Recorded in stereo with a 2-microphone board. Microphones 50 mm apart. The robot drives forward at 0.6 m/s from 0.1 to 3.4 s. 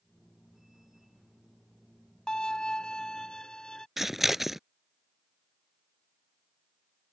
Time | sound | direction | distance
2.3 | a violin | 15° left (ahead or behind) | ?
4.0 | scissors | 5° right (ahead or behind) | ?